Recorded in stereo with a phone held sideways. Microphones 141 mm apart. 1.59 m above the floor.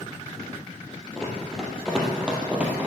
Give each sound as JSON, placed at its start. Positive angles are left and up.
{"t": 1.2, "sound": "running footsteps", "side_deg": 5, "distance_m": 3.0}